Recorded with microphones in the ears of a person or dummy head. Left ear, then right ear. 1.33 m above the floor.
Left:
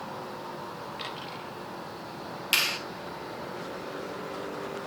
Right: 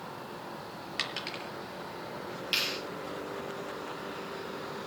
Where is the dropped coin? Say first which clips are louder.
Right 6 dB; 75° right (ahead or behind), 5 m.